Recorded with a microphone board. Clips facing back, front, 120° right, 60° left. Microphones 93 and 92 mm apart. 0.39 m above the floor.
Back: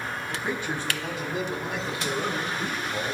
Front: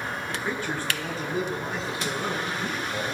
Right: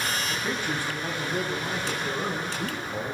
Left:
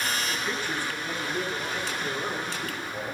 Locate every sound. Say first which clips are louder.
0.3 s a man speaking: even, right 1 dB; 110° right, 2.5 m; by 3.1 s 105° right, 6 m